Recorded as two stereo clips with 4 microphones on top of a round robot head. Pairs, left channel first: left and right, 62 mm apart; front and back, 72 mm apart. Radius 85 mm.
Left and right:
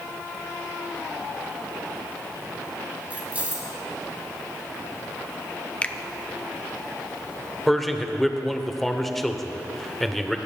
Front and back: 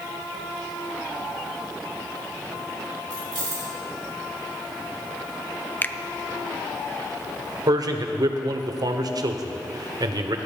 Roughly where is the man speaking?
Behind.